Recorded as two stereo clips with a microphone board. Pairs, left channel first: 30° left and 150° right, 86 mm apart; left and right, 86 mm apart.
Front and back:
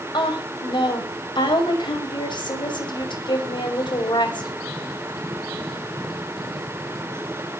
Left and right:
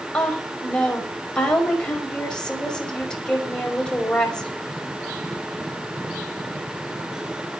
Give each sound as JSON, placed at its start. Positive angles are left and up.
{"t": 0.1, "sound": "a woman speaking", "azimuth_deg": 10, "distance_m": 5.5}